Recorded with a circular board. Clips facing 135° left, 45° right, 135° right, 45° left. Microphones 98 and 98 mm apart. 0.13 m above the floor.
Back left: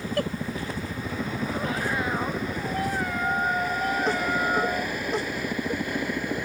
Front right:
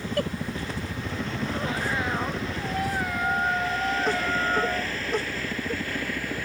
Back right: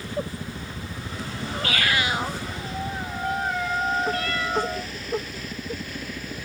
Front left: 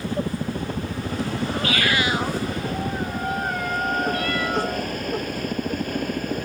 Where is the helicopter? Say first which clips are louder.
Even, front left 5 dB; 55° left; by 6.5 s 65° left.